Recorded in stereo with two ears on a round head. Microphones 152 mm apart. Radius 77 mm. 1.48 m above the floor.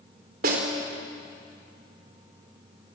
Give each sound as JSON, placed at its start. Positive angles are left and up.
{"t": 0.4, "sound": "a snare drum", "side_deg": -55, "distance_m": 4.0}